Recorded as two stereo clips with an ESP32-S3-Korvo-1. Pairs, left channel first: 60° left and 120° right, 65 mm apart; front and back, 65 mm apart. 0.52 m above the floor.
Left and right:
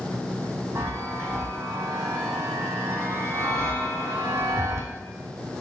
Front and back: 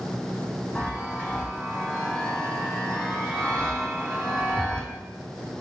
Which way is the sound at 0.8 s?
75° right.